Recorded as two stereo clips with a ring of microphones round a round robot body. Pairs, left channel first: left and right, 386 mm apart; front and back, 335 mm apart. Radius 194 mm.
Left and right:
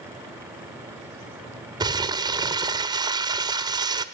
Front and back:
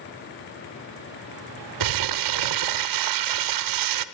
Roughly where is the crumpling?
Behind.